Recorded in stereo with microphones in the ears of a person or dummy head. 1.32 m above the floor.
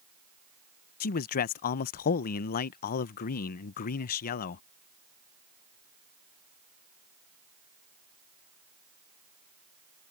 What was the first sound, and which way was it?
A man speaking, 45° left (ahead or behind).